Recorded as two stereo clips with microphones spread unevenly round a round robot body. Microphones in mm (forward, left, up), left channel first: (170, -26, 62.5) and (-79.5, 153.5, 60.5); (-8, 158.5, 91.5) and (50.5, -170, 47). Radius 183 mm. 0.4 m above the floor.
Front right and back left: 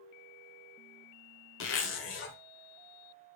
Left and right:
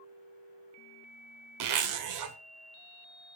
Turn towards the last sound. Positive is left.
turn(degrees=-85)